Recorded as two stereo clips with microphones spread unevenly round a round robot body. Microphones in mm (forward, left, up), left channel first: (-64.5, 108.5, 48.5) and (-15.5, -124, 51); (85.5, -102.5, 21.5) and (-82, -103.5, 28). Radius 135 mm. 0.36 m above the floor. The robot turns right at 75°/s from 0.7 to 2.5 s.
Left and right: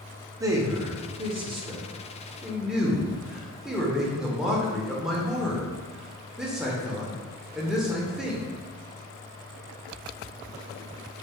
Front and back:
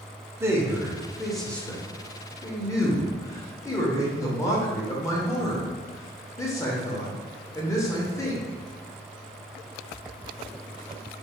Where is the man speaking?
130° right, 0.8 m; by 8.4 s 5° left, 0.8 m.